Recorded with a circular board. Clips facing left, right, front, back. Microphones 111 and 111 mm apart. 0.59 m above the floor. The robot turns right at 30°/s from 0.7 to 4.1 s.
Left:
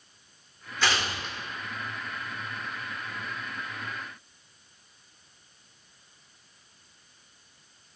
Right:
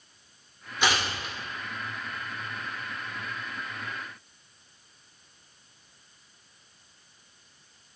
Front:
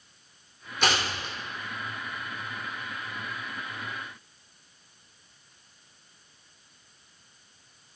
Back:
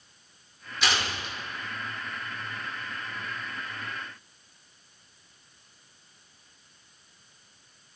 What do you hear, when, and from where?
0.8 s tearing paper: 25° right, 1.8 m; by 1.4 s 5° right, 1.8 m